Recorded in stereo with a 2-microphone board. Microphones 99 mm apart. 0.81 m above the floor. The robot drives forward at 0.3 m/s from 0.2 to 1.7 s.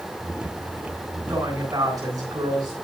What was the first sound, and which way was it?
A woman speaking, 40° right (ahead or behind).